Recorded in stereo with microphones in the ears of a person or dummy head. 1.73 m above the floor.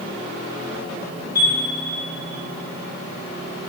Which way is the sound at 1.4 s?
55° left (ahead or behind).